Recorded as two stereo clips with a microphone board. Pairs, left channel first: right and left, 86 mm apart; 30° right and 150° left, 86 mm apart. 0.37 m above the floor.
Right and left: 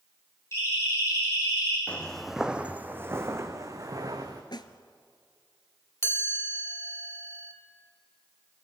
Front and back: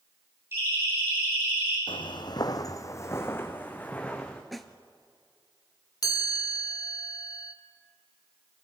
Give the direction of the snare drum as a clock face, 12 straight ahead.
4 o'clock.